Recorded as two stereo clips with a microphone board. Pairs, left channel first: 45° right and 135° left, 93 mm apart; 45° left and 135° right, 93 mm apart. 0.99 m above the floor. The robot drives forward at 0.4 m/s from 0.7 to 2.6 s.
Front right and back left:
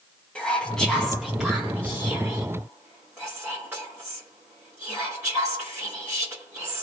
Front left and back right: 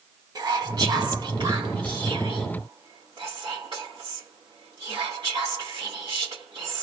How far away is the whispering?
About 0.6 m.